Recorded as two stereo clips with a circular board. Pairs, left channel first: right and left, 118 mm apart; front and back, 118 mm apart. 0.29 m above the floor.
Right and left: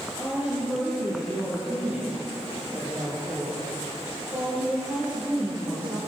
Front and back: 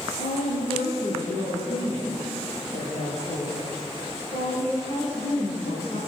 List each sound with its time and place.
0.2 s a woman speaking: 15° left, 5.5 m; by 6.0 s 20° left, 13 m